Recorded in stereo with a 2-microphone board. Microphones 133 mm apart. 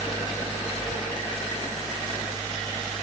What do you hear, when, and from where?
Only background noise.